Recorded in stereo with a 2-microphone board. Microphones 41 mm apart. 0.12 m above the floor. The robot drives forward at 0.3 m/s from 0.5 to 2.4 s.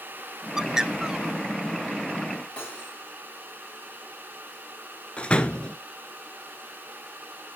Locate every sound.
0.6 s a bird: 15° right (ahead or behind), 0.7 m
2.6 s cutlery clinking: 20° left (ahead or behind), 6.5 m
5.2 s a door slam: 25° left (ahead or behind), 1.3 m